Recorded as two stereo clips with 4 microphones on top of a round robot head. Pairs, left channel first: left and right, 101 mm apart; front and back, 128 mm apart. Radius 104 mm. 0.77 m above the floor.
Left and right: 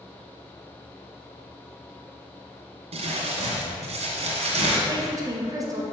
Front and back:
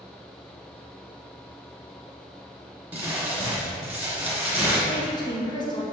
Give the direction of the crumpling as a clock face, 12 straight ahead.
3 o'clock.